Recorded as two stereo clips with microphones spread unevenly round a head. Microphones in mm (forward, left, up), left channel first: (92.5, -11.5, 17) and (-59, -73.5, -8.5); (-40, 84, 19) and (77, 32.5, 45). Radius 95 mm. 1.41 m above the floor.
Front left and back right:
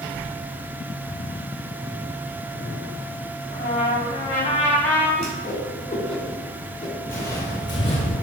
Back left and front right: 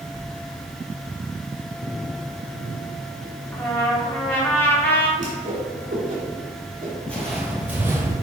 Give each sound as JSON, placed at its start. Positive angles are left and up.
{"t": 3.5, "sound": "a trumpet", "azimuth_deg": 80, "distance_m": 1.4}
{"t": 5.2, "sound": "a whoosh", "azimuth_deg": -25, "distance_m": 2.5}
{"t": 7.1, "sound": "footsteps", "azimuth_deg": 65, "distance_m": 1.5}